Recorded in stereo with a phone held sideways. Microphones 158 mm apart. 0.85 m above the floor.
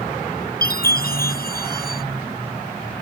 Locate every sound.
0.6 s a chime: 75° left (ahead or behind)